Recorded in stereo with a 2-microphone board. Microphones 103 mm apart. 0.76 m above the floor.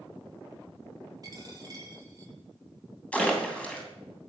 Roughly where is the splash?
Centre.